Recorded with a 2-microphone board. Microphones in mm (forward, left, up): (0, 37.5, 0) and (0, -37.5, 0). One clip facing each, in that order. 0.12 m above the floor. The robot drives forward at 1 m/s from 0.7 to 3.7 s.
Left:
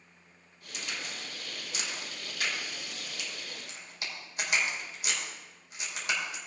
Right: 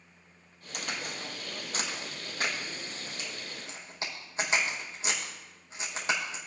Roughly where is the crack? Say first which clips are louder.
Right 3 dB; right.